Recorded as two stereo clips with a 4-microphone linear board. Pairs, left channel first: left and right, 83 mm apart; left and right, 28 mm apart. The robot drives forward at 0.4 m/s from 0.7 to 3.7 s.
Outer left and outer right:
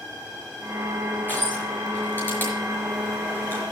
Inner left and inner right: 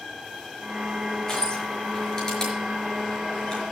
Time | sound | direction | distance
1.3 | crushing | 25° left (ahead or behind) | 5.5 m